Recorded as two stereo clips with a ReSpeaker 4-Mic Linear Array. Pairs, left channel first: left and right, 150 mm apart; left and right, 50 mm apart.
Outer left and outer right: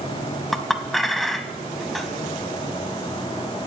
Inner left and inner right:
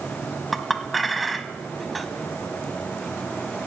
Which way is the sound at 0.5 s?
Centre (ahead or behind).